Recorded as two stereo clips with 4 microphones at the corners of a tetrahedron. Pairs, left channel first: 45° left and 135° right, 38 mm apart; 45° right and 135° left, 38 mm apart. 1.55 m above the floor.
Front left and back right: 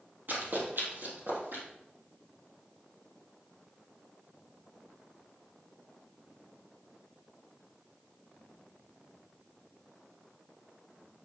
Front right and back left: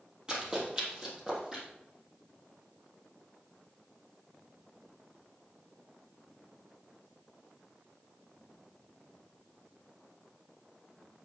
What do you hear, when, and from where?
0.3 s running footsteps: 160° right, 3 m; by 1.6 s 155° right, 3.5 m